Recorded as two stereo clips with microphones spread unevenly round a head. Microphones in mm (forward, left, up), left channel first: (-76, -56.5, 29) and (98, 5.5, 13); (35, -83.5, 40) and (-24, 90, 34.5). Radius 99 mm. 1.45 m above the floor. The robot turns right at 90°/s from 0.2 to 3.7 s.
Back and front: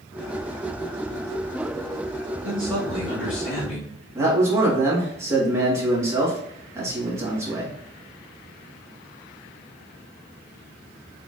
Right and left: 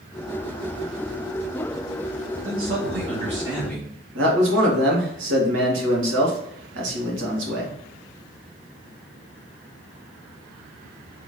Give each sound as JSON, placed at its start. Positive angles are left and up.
{"t": 2.4, "sound": "a man speaking", "azimuth_deg": 90, "distance_m": 1.5}
{"t": 4.2, "sound": "a man speaking", "azimuth_deg": 95, "distance_m": 1.7}